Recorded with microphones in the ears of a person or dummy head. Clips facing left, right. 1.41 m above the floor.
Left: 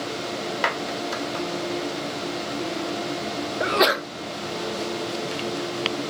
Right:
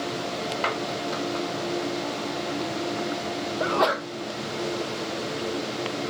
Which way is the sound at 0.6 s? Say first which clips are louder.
Left 1 dB; 15° left (ahead or behind).